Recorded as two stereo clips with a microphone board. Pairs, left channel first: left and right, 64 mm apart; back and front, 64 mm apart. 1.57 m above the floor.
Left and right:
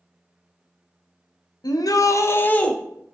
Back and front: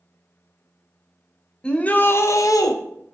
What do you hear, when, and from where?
1.6 s a shout: 105° left, 0.6 m; by 2.8 s 165° left, 0.5 m